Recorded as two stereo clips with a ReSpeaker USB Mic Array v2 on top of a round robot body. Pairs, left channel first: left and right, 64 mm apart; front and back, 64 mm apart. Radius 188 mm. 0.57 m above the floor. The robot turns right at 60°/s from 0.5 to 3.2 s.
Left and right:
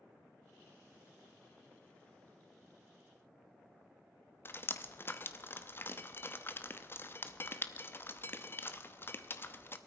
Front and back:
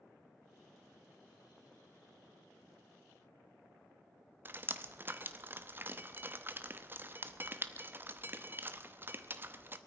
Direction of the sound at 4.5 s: 130° left.